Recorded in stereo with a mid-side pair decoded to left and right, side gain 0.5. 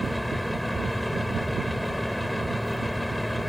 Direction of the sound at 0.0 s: Straight ahead.